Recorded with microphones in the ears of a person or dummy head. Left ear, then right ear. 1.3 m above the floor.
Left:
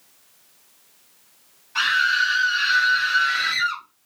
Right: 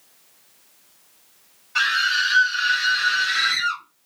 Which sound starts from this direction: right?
A scream, at 1.8 s.